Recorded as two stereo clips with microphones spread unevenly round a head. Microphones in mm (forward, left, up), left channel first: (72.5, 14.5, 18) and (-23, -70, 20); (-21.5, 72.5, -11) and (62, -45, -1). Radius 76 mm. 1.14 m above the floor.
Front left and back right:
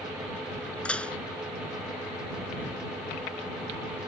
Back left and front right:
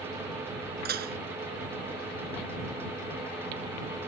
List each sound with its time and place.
0.8 s dishes clattering: 40° right